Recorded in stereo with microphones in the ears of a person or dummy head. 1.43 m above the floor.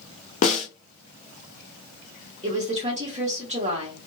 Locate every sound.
0.4 s a snare drum: 35° left (ahead or behind), 0.5 m
2.4 s a woman speaking: 35° right (ahead or behind), 1.1 m